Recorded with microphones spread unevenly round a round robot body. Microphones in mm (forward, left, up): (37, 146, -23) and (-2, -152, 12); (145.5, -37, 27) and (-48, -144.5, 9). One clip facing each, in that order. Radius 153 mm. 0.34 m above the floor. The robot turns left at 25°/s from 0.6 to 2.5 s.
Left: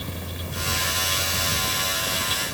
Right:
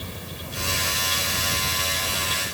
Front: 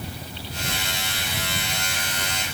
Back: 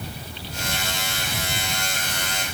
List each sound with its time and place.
Only background noise.